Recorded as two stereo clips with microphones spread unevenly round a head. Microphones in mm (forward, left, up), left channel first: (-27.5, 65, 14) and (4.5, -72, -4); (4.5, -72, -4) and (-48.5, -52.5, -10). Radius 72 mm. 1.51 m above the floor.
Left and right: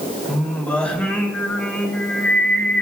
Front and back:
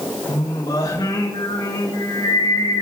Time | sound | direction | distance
0.3 | singing | 20° left | 3.5 m